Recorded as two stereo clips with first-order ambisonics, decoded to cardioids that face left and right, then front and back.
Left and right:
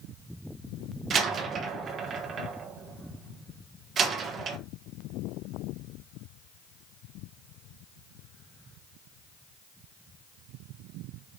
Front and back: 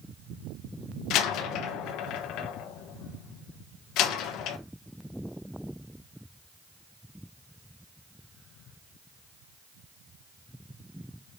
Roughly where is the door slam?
Ahead right.